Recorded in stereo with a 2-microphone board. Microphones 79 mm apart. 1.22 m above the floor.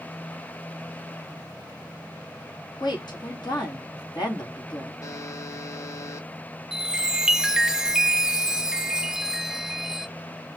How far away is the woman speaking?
About 2 m.